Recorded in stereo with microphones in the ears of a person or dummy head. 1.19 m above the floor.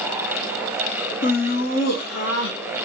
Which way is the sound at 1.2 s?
45° left (ahead or behind).